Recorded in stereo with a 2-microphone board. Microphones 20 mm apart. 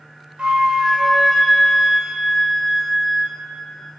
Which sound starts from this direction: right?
A flute, at 0.4 s.